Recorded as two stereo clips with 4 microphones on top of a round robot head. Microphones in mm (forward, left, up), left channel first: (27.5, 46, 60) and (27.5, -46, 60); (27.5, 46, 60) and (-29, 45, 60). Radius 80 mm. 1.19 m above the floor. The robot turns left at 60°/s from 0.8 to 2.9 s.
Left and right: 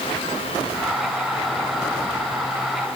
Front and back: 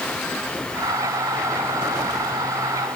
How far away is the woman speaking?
I don't hear a woman speaking.